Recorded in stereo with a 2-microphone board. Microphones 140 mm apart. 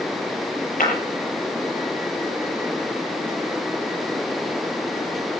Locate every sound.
0.8 s breaking glass: 75° left (ahead or behind), 7.5 m